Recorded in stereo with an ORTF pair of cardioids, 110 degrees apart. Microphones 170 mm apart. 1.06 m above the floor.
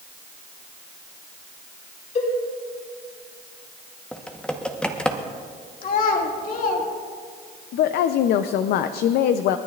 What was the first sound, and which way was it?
A cowbell, 45° left.